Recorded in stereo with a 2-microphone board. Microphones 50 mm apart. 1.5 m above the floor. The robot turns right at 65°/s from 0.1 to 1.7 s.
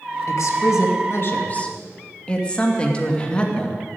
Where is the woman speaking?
70° left, 2 m; by 3.9 s 160° left, 2 m.